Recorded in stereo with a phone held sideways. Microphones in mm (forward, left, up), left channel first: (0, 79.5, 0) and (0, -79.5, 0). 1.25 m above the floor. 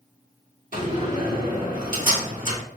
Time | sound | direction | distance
0.7 | a door slam | 55° right (ahead or behind) | 1.8 m